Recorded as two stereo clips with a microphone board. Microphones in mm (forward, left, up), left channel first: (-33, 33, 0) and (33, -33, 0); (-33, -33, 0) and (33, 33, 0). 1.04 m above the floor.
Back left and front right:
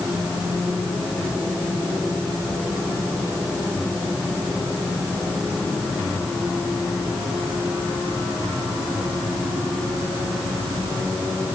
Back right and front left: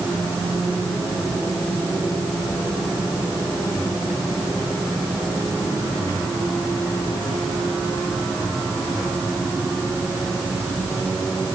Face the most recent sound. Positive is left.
No sound to turn to.